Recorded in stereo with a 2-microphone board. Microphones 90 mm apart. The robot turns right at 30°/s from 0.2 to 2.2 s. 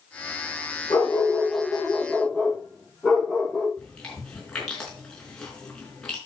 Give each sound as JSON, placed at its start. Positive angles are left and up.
{"t": 0.9, "sound": "a dog barking", "azimuth_deg": 145, "distance_m": 7.5}
{"t": 3.8, "sound": "chewing", "side_deg": 10, "distance_m": 4.5}